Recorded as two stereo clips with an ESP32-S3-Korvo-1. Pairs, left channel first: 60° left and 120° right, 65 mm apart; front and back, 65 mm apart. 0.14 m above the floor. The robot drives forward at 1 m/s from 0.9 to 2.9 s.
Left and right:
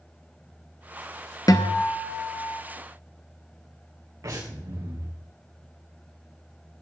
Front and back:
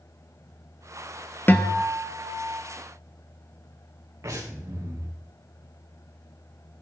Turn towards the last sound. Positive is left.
turn(degrees=-140)